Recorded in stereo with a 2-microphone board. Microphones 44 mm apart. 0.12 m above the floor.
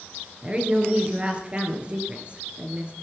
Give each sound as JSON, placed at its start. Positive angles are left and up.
{"t": 0.4, "sound": "a woman speaking", "side_deg": -25, "distance_m": 2.5}